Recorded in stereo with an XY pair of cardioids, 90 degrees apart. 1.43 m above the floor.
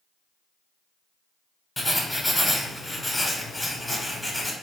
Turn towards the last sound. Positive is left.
turn(degrees=5)